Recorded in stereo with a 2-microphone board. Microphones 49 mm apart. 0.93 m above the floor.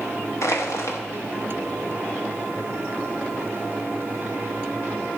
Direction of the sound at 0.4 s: 70° left (ahead or behind).